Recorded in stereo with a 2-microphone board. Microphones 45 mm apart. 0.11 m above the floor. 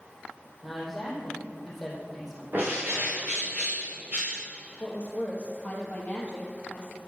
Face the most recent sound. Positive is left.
turn(degrees=30)  # may be behind; listen again after turning